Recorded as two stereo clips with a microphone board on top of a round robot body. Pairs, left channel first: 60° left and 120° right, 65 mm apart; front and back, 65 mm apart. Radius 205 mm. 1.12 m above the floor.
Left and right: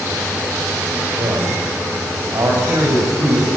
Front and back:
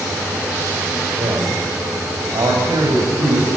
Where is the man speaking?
150° right, 4.5 m; by 3.5 s 160° right, 7.5 m.